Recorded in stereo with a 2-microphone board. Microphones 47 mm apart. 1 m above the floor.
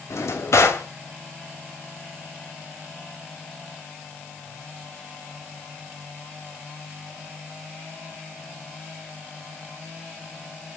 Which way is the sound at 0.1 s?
70° left (ahead or behind).